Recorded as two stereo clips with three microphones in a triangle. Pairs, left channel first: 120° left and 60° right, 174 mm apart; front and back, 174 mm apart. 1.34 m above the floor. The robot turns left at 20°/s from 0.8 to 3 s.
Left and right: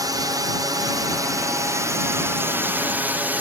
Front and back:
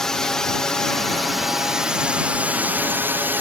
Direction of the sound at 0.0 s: 80° right.